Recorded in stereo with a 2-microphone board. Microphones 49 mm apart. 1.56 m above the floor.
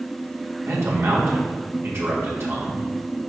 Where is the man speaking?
65° right (ahead or behind), 2.5 m.